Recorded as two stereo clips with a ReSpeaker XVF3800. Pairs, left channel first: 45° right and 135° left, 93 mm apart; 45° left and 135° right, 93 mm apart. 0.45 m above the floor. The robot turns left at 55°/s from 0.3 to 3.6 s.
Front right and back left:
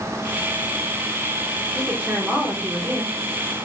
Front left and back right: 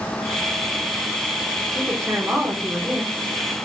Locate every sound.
1.8 s a woman speaking: 155° right, 1.0 m; by 3.2 s 130° left, 1.0 m